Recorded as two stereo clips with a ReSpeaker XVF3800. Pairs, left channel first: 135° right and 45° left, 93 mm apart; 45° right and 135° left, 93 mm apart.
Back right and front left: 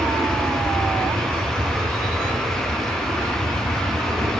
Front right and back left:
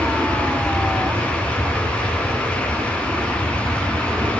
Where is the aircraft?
90° left; by 4.4 s 85° left.